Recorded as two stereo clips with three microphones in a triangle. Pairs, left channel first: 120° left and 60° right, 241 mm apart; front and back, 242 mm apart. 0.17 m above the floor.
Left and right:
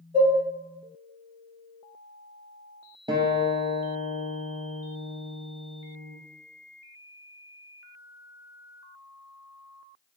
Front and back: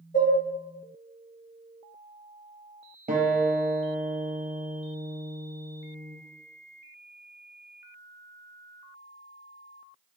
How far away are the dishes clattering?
About 1.5 m.